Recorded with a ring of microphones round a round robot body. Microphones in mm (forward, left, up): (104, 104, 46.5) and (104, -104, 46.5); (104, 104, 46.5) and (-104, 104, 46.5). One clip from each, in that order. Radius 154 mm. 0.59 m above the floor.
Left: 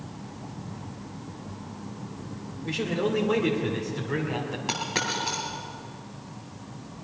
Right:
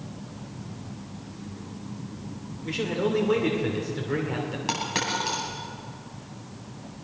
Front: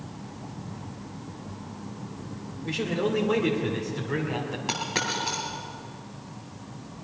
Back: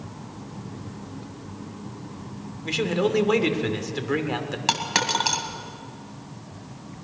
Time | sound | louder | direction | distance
2.6 | a man speaking | right 1 dB, back 4 dB | straight behind | 2 m
4.7 | a dropped coin | right 1 dB, back 6 dB | 175° right | 2.5 m